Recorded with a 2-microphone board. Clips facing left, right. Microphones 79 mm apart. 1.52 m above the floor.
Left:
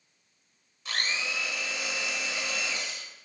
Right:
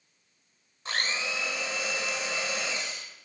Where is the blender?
35° right (ahead or behind), 1.7 m.